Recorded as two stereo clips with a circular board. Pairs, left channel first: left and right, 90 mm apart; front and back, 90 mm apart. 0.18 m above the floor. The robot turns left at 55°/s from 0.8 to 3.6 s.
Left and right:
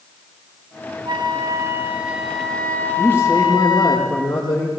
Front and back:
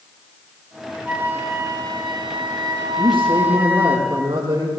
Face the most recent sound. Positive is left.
turn(degrees=130)